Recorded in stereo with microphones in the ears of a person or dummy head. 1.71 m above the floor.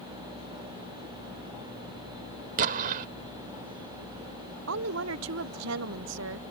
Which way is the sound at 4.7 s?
80° right.